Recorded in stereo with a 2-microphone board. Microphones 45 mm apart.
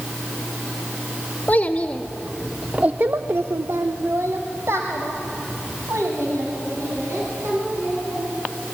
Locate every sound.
1.5 s a child speaking: 35° left (ahead or behind), 1.2 m; by 8.2 s 70° right (ahead or behind), 5 m